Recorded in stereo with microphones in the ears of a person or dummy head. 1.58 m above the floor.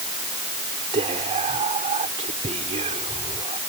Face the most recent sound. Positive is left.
turn(degrees=-30)  # may be behind; listen again after turning